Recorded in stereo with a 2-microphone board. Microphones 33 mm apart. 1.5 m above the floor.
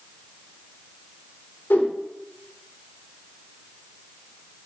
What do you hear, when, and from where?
1.7 s a whoosh: 75° left (ahead or behind), 0.6 m